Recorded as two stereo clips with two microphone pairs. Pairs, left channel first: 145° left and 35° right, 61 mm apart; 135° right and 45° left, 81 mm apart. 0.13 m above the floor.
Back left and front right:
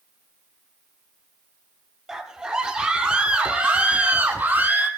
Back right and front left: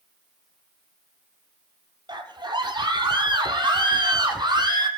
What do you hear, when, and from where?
2.1 s a scream: 50° left, 2.5 m; by 4.9 s 25° left, 3.5 m